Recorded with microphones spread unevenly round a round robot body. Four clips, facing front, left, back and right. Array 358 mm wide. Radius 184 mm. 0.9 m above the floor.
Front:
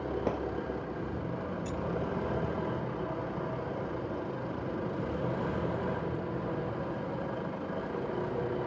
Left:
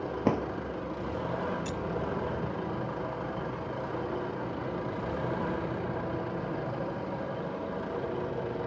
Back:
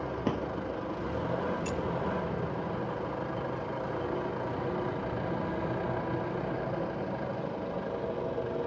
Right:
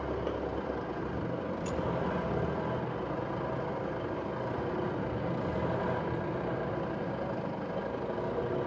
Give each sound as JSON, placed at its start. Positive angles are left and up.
{"t": 0.2, "sound": "a drawer", "azimuth_deg": 110}
{"t": 1.6, "sound": "keys jangling", "azimuth_deg": 145}